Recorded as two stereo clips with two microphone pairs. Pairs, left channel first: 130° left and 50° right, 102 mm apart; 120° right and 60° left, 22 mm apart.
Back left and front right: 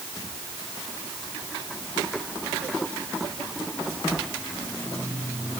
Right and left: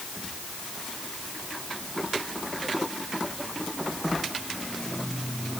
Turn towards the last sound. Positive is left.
No sound to turn to.